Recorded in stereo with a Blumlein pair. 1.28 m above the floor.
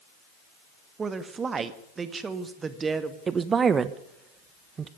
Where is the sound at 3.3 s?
20° right, 1.2 m.